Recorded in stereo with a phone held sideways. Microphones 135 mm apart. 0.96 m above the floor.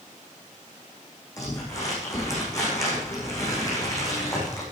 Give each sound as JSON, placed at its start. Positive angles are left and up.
{"t": 1.4, "sound": "crumpling", "side_deg": 25, "distance_m": 9.0}